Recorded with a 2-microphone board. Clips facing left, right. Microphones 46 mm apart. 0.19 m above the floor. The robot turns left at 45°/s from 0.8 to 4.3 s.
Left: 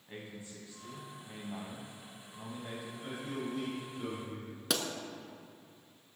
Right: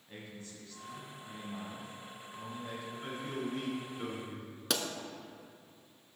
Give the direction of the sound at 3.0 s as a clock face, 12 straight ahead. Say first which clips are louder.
Right 1 dB; 3 o'clock.